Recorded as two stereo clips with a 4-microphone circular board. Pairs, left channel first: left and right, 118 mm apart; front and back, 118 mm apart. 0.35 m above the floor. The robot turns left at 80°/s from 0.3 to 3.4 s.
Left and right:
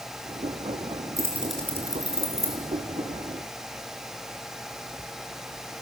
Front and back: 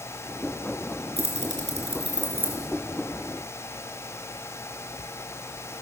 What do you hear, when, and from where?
1.2 s keys jangling: 150° right, 3.5 m; by 2.6 s 95° left, 3.5 m